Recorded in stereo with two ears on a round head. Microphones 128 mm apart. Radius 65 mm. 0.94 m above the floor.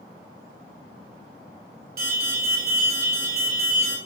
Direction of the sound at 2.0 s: 75° right (ahead or behind).